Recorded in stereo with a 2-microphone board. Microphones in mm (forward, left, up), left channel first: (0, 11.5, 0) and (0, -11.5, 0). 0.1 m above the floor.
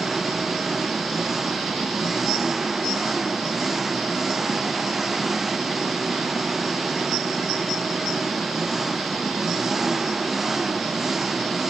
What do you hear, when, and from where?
0.0 s an engine running: 10° right (ahead or behind)